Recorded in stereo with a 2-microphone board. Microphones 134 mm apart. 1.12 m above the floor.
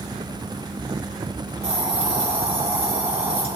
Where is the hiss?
50° right (ahead or behind), 4.5 m.